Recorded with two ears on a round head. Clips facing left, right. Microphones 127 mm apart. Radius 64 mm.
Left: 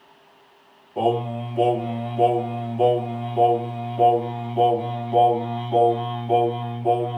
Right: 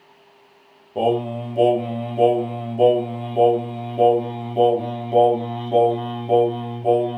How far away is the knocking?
I don't hear knocking.